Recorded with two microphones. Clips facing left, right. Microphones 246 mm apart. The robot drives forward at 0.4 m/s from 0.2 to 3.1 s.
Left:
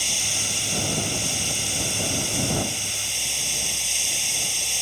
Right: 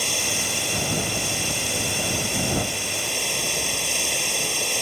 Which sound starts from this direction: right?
Running water, at 0.0 s.